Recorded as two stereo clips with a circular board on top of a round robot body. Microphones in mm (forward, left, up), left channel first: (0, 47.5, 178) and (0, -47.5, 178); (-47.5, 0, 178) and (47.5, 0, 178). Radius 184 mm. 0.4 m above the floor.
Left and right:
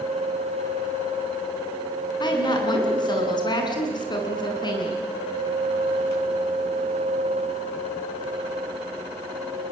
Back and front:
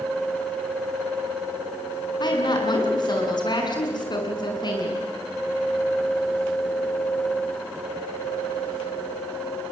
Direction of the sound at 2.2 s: 135° left.